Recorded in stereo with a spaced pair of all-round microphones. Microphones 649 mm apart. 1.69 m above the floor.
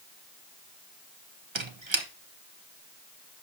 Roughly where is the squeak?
Right.